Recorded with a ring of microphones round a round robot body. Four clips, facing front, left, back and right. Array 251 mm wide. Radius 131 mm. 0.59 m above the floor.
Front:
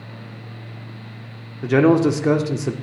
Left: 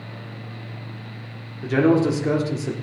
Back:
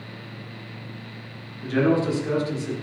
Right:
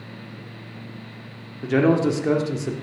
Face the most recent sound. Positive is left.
turn(degrees=0)